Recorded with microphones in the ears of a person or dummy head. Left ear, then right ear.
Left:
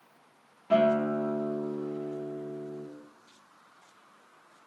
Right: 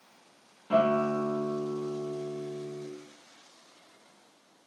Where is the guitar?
5° left (ahead or behind), 1.0 m.